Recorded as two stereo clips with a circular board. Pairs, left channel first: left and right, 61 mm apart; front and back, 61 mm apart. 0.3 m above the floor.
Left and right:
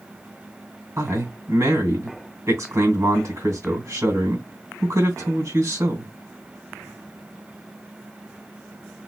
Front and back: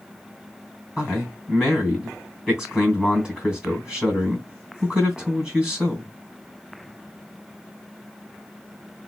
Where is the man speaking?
105° right, 2.5 m.